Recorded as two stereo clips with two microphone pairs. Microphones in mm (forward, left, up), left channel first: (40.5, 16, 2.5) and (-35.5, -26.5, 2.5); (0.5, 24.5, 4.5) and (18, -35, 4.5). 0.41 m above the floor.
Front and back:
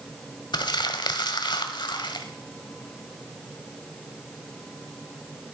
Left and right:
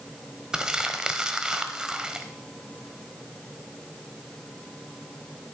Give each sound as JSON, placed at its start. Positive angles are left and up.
{"t": 0.5, "sound": "crumpling", "azimuth_deg": 5, "distance_m": 1.2}